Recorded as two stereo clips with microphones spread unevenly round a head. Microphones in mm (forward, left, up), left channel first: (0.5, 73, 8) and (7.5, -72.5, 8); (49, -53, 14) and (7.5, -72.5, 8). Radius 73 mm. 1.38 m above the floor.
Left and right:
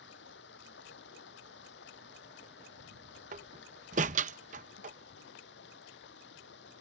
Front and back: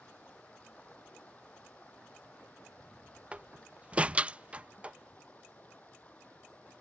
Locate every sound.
0.0 s running water: 105° left
3.3 s a door slam: 90° right